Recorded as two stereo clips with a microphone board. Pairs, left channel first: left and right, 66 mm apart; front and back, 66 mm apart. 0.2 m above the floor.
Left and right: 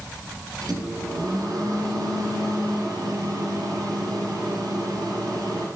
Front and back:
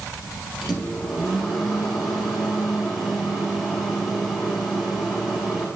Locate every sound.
0.6 s a microwave: 90° right, 2.5 m